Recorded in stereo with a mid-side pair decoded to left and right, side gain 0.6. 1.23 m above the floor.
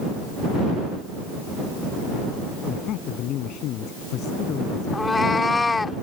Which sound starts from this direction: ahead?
A cat meowing, at 4.9 s.